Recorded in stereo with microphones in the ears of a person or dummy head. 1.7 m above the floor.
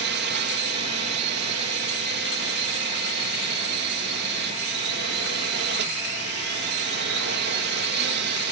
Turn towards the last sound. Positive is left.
turn(degrees=-60)  # may be behind; listen again after turning